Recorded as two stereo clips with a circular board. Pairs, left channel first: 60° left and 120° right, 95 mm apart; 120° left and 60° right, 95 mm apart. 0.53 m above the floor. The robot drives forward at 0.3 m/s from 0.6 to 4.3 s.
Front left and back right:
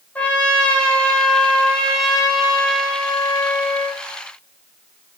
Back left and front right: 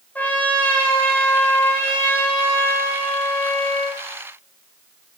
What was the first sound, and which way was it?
A trumpet, 100° left.